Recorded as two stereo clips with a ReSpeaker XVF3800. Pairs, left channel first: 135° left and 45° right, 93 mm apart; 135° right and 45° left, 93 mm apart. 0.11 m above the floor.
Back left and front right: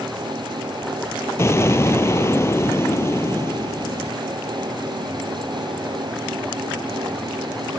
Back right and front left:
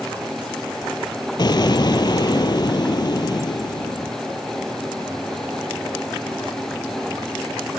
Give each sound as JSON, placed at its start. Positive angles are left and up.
{"t": 1.4, "sound": "an explosion", "azimuth_deg": -170, "distance_m": 0.6}